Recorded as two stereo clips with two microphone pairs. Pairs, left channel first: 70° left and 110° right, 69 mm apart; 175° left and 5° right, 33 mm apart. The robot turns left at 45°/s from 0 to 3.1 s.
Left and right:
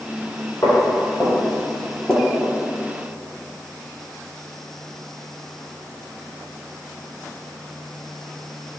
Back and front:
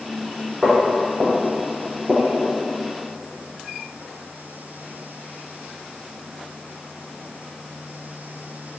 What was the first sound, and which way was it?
Footsteps, 40° left.